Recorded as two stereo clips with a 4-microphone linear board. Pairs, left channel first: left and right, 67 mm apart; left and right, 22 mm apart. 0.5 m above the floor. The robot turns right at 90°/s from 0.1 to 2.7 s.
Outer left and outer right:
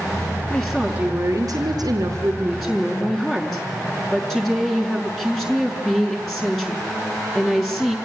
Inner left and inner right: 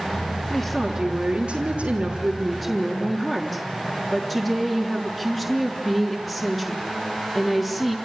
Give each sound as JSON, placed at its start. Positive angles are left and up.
{"t": 0.5, "sound": "a woman speaking", "azimuth_deg": 170, "distance_m": 6.5}